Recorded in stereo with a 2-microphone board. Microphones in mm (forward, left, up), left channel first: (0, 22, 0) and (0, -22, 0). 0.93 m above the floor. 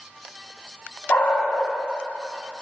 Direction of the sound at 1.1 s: 55° left (ahead or behind).